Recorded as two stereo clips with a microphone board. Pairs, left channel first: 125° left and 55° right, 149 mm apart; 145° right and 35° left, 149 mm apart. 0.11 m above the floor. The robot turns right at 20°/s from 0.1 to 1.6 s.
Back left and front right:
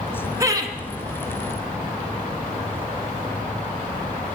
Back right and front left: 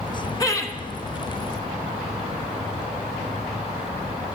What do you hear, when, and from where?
0.4 s laughter: 105° right, 1.2 m; by 0.8 s 95° right, 1.2 m